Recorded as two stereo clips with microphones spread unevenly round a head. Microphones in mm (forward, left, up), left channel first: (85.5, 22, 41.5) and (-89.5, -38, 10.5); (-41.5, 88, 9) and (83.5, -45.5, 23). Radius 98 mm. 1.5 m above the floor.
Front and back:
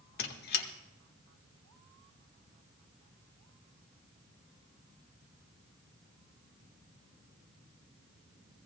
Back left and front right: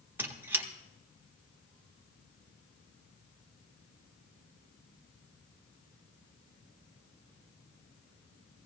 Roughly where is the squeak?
Ahead left.